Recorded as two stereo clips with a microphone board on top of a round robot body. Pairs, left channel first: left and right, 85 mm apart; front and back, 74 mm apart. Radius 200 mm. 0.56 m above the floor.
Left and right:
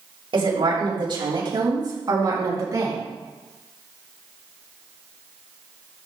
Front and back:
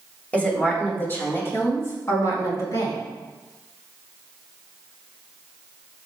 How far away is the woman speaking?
About 3.5 m.